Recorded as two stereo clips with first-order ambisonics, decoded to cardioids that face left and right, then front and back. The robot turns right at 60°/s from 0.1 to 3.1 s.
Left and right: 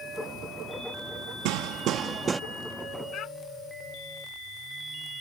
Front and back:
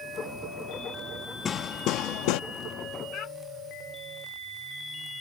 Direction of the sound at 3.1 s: 45° left.